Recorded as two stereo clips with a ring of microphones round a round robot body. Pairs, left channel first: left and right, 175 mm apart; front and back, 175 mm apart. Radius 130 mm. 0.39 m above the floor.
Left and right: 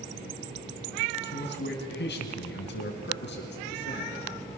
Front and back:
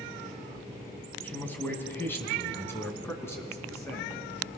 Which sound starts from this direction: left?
A man speaking, at 1.2 s.